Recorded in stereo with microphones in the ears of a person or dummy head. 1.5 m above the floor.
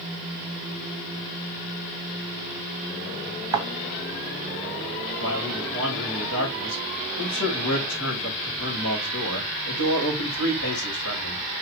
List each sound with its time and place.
3.5 s a thud: 20° right (ahead or behind), 3 m
5.2 s a man speaking: 85° left, 4.5 m